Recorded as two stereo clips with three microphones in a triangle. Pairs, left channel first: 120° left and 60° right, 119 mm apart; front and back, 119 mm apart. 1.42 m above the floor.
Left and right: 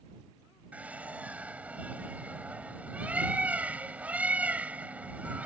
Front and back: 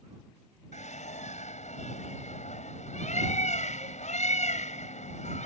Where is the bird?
20° left.